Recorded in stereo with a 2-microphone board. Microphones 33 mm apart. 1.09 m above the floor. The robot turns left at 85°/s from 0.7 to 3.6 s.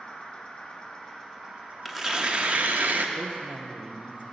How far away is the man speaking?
About 0.5 m.